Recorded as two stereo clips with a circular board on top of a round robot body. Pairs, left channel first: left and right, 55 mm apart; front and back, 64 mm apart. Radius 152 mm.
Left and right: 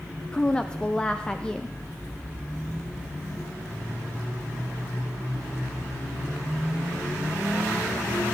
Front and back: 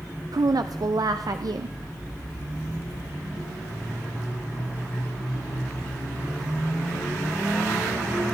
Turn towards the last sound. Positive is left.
turn(degrees=160)